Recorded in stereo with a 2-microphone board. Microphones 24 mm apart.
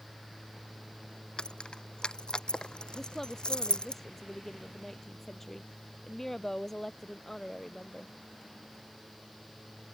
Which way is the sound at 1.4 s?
40° left (ahead or behind).